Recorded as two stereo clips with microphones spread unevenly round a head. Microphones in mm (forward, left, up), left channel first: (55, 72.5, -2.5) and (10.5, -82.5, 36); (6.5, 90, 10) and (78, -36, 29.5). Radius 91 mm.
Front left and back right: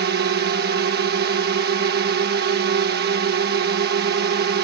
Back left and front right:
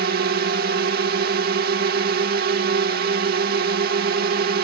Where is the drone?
85° right.